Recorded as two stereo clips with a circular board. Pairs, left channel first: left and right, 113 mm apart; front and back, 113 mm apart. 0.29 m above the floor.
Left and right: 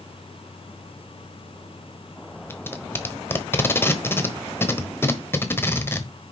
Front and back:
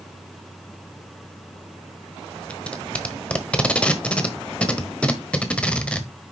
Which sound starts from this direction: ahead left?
Tape being pulled, at 2.5 s.